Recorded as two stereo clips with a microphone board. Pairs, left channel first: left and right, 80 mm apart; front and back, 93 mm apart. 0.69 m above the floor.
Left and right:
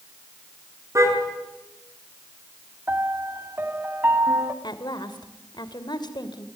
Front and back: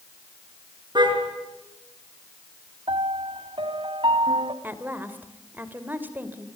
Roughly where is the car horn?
Behind right.